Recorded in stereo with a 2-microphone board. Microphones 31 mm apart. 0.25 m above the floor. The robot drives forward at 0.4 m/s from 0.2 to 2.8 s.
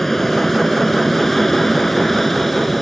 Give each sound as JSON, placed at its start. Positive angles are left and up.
{"t": 0.0, "sound": "an aircraft", "side_deg": 5}